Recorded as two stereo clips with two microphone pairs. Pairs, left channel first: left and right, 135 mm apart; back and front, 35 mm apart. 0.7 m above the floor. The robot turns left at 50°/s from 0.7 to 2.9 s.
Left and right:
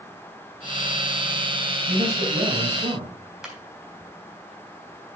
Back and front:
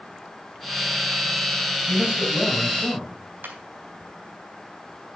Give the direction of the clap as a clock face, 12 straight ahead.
12 o'clock.